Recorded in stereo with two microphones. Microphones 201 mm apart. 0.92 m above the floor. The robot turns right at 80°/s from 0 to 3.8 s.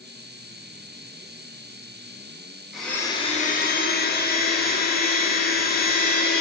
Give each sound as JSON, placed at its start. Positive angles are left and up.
{"t": 2.7, "sound": "a blender", "azimuth_deg": -5, "distance_m": 0.6}